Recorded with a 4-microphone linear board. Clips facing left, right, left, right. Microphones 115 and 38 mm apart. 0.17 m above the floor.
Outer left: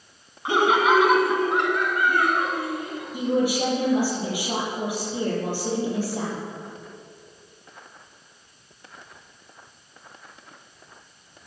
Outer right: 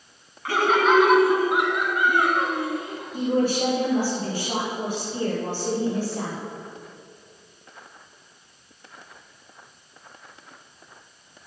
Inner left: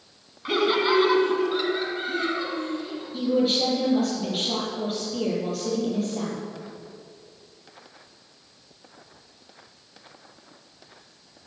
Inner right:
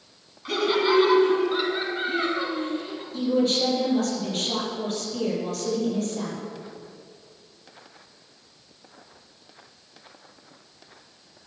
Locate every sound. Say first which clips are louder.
0.5 s laughter: even, inner left 1 dB; 20° left (ahead or behind), 1.2 m; by 3.0 s 30° right (ahead or behind), 2 m
3.1 s a woman speaking: even, even; 10° left (ahead or behind), 4.5 m